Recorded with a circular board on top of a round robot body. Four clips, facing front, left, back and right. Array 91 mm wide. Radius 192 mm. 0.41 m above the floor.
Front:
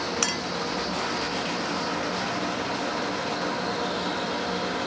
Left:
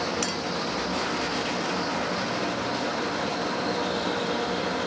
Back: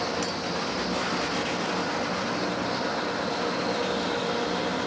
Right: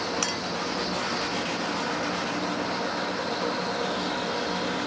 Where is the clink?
15° right.